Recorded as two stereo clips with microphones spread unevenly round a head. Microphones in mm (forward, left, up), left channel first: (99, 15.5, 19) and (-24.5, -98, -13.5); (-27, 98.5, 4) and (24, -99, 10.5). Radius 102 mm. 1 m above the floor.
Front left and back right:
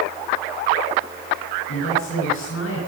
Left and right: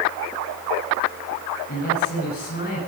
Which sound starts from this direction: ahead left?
A woman speaking, at 1.7 s.